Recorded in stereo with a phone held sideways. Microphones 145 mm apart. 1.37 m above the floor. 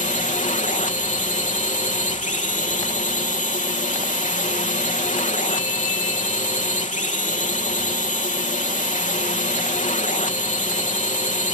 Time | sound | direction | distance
0.0 | a drone | 60° left (ahead or behind) | ?